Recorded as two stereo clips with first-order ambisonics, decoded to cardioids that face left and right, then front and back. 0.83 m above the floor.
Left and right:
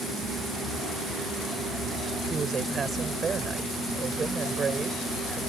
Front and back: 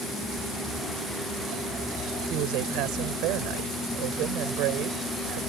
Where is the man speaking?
155° right.